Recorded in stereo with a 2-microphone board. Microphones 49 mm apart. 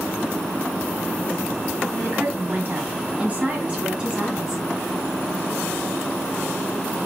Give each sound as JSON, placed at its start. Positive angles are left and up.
{"t": 2.0, "sound": "a woman speaking", "side_deg": -50, "distance_m": 2.0}